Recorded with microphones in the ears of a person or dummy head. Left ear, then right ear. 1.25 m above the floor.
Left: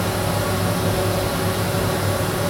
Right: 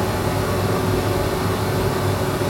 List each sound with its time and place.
0.0 s a fan: 60° left (ahead or behind), 0.9 m